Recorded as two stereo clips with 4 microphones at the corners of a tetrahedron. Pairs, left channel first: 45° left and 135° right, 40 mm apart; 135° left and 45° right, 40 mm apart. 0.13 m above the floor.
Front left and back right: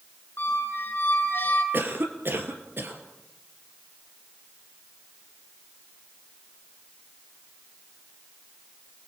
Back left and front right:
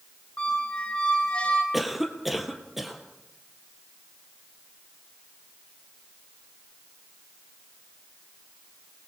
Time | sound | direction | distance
0.4 | a squeak | 70° left | 2.5 m
1.7 | a cough | 130° right | 3 m